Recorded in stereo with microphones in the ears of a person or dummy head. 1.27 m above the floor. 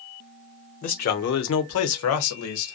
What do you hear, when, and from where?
0.8 s a man speaking: 45° left (ahead or behind), 0.7 m; by 2.8 s 65° left (ahead or behind), 1.1 m